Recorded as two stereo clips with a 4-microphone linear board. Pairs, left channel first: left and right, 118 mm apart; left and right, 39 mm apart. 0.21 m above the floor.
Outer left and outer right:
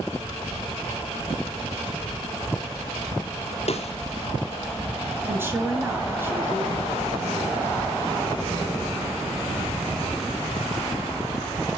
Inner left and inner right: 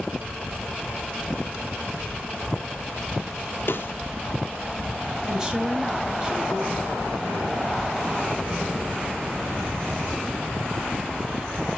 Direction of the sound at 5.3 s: 20° right (ahead or behind).